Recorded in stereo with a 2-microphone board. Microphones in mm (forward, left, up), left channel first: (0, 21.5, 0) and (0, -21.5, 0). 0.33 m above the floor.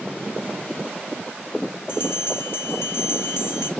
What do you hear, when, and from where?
1.9 s a bell: 65° left (ahead or behind), 0.7 m